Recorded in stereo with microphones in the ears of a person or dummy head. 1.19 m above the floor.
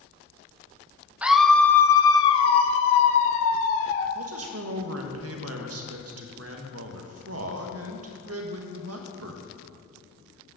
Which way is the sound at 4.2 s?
75° right (ahead or behind).